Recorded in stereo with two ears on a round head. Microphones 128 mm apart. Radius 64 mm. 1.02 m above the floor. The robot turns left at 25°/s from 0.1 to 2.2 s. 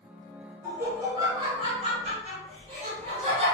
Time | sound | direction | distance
0.6 | laughter | 15° right | 1.2 m